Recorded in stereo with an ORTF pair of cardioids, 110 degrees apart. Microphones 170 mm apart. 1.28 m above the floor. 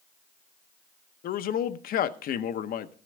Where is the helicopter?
No helicopter in this recording.